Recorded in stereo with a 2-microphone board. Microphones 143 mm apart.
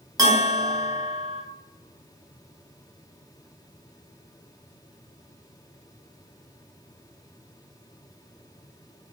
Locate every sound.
0.2 s a bell: 25° right (ahead or behind), 0.6 m